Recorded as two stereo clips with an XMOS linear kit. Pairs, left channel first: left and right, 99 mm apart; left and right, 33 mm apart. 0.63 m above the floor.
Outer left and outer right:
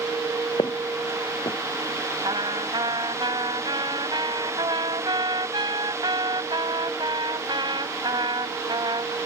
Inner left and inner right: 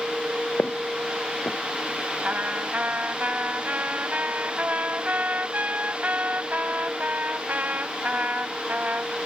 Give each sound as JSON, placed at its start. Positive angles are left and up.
{"t": 0.6, "sound": "footsteps", "side_deg": 55}
{"t": 2.2, "sound": "a trumpet", "side_deg": -50}